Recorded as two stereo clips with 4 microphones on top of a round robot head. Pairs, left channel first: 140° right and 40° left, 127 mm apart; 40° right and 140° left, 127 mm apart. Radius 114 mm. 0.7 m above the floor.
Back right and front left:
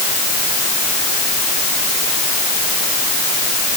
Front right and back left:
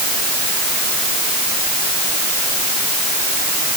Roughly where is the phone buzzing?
No phone buzzing in this recording.